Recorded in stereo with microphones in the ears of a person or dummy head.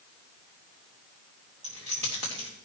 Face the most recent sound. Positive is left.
turn(degrees=-30)  # may be behind; listen again after turning